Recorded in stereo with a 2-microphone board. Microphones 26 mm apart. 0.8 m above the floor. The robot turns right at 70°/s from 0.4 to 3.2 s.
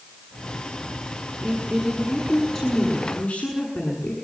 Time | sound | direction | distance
1.4 | a woman speaking | 70° right | 7.5 m